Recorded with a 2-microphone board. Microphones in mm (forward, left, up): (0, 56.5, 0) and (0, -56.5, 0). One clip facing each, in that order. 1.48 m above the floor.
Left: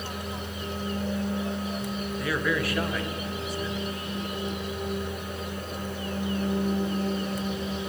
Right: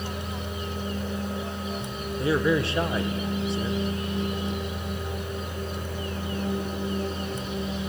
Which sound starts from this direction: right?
A man speaking, at 2.2 s.